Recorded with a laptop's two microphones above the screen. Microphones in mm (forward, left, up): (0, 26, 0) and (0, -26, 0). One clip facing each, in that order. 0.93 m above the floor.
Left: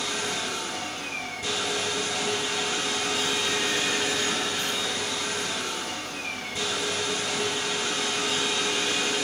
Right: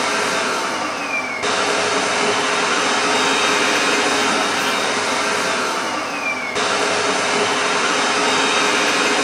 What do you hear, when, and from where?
0.0 s a machine running: 70° right (ahead or behind), 0.8 m